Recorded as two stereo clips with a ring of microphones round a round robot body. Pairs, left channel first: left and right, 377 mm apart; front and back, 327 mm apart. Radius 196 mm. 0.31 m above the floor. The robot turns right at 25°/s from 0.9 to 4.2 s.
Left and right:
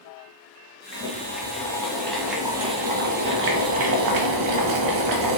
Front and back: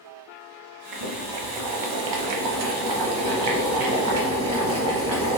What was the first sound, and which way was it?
Boiling, 150° left.